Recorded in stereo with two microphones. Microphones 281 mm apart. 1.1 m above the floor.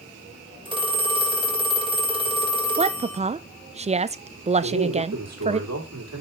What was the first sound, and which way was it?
A phone ringing, 20° right (ahead or behind).